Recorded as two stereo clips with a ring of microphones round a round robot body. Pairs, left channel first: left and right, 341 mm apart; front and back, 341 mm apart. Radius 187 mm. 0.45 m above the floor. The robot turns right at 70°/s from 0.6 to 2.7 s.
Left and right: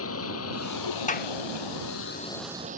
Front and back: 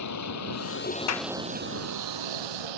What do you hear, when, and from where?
0.0 s a vehicle: 40° left; by 2.8 s 160° right
1.1 s a clap: 25° left; by 1.3 s 40° left